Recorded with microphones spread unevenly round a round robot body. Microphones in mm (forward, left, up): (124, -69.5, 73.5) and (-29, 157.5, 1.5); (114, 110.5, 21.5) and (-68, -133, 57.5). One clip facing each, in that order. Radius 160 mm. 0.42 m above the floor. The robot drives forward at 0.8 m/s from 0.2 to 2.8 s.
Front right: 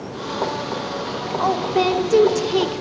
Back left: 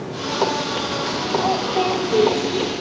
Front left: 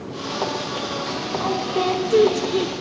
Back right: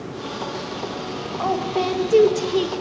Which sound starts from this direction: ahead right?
A woman speaking, at 1.4 s.